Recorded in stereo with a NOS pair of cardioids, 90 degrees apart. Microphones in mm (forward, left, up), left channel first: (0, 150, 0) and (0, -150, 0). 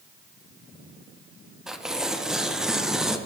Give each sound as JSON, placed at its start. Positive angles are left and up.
{"t": 1.7, "sound": "tearing paper", "azimuth_deg": 0, "distance_m": 0.5}